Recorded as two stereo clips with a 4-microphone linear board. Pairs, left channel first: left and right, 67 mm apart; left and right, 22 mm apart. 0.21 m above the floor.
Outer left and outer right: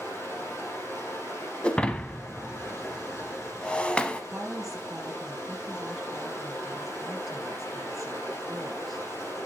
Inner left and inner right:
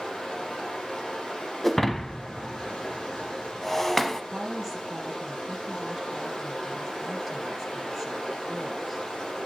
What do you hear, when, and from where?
0.0 s running water: 45° left (ahead or behind), 5 m
1.6 s breaking glass: 15° left (ahead or behind), 0.9 m
4.3 s a woman speaking: 5° right (ahead or behind), 3 m